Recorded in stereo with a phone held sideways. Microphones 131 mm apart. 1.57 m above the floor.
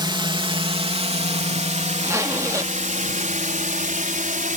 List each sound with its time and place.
0.0 s a drone: 35° right (ahead or behind); by 4.6 s 85° right
2.0 s a zipper: 25° right (ahead or behind)